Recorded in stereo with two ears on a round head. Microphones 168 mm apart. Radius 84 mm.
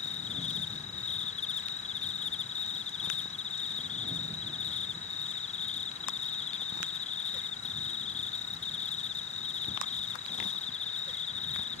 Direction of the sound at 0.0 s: 40° left (ahead or behind).